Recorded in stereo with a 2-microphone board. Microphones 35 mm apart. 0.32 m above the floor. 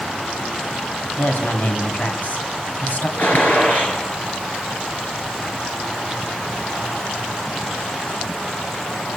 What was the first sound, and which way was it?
A woman speaking, 50° left (ahead or behind).